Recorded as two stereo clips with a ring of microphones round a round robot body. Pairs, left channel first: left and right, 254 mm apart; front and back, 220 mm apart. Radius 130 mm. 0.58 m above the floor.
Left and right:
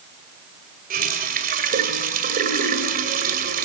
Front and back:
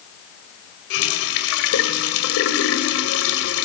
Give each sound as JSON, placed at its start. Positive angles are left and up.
{"t": 0.9, "sound": "a running tap", "azimuth_deg": -35, "distance_m": 2.0}